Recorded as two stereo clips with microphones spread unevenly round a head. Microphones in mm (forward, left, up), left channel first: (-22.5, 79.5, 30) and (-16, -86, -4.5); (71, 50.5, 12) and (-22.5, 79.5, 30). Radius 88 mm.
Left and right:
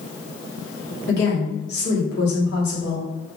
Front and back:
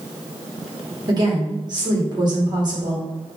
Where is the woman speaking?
115° left, 1.5 m.